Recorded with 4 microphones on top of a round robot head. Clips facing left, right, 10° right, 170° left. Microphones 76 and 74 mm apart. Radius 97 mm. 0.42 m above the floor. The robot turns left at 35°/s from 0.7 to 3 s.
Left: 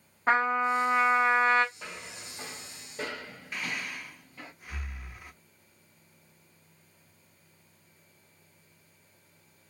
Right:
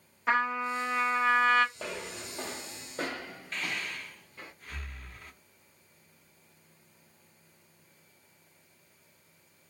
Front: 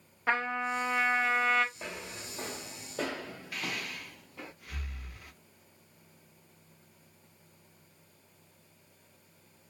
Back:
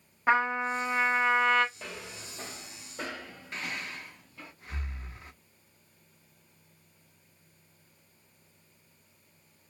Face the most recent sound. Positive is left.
turn(degrees=155)